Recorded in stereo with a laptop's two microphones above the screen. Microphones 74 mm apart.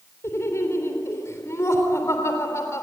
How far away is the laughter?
About 3.5 m.